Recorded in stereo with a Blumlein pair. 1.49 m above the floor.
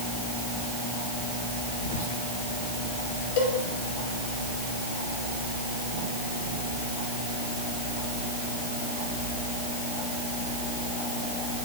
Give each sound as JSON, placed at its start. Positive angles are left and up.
{"t": 1.8, "sound": "whispering", "azimuth_deg": 55, "distance_m": 1.2}
{"t": 3.4, "sound": "a cowbell", "azimuth_deg": 45, "distance_m": 2.5}